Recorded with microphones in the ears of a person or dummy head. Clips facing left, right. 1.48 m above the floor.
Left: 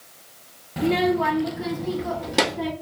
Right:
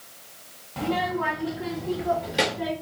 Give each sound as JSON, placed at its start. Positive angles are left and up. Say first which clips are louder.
{"t": 0.8, "sound": "a child speaking", "louder": "left 6 dB", "side_deg": 15, "distance_m": 0.6}